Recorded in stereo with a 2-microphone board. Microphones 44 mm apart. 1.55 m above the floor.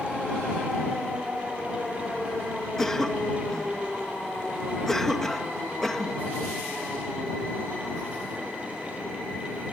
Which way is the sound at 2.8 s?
10° left (ahead or behind).